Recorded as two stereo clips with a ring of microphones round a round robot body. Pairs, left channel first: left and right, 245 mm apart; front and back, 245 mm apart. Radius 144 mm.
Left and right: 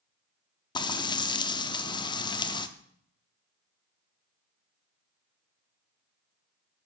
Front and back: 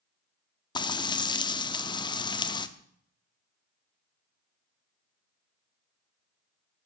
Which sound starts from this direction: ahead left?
Frying, at 0.8 s.